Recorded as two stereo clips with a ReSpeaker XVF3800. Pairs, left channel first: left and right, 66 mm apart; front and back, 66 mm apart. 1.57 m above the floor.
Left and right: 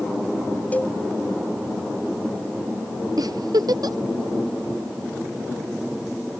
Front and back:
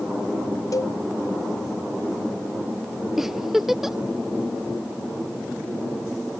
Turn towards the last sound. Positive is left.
turn(degrees=-95)